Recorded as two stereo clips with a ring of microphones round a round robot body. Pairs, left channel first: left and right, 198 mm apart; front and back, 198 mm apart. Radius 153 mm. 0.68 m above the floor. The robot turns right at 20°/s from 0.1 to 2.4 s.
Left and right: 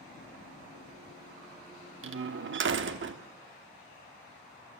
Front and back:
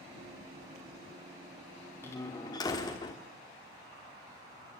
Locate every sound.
2.0 s a door slam: 80° right, 1.2 m; by 3.2 s 75° right, 1.2 m